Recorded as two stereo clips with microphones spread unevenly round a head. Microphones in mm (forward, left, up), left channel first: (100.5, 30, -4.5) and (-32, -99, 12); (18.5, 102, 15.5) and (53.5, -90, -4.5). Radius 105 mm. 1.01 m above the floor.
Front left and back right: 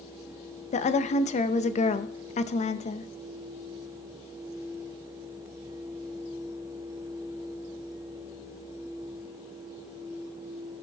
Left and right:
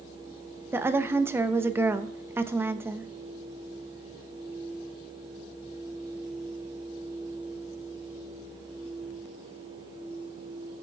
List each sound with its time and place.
0.7 s a woman speaking: 5° right, 0.7 m